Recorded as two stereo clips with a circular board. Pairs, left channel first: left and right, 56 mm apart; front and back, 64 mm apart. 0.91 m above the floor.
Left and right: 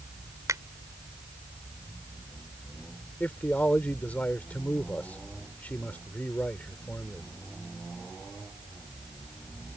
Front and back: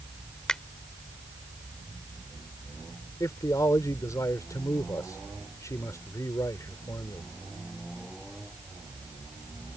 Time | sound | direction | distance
0.5 | a finger snap | 80° right | ?
3.2 | a man speaking | 25° left | ?